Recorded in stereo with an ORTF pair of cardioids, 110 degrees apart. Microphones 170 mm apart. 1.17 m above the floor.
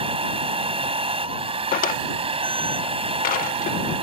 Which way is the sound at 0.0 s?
40° right.